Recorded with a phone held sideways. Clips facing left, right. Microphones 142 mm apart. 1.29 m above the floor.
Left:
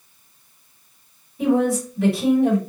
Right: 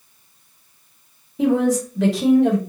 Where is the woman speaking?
80° right, 1.2 m.